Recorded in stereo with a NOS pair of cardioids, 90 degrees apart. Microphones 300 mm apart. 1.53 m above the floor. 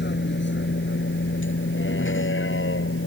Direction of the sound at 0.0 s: 35° left.